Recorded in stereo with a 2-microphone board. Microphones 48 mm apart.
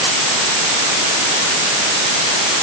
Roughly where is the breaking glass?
I don't hear breaking glass.